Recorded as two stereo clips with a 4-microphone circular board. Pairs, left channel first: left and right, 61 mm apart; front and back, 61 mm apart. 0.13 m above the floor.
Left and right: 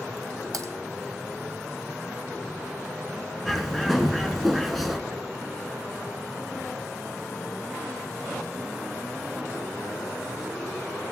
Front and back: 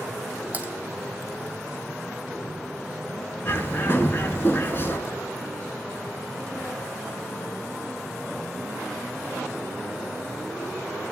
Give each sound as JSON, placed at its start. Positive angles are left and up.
{"t": 0.5, "sound": "typing on a keyboard", "azimuth_deg": -115, "distance_m": 1.2}
{"t": 3.5, "sound": "a bird", "azimuth_deg": 0, "distance_m": 0.8}